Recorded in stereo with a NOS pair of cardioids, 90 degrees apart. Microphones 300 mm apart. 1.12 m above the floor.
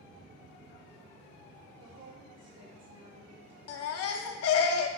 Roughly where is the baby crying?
Ahead left.